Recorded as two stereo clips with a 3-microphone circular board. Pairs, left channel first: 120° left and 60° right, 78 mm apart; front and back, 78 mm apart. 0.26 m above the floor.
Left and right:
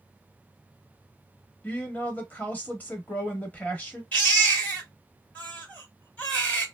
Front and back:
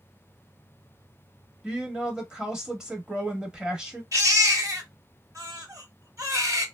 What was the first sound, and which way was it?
A woman speaking, 120° left.